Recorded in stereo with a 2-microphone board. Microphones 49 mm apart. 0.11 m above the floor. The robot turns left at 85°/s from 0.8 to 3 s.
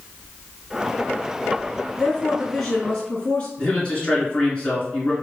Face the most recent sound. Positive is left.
turn(degrees=20)  # may be behind; listen again after turning